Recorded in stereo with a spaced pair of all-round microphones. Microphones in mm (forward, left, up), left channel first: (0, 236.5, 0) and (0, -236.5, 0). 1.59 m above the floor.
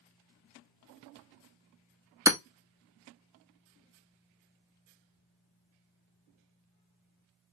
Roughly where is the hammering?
Centre.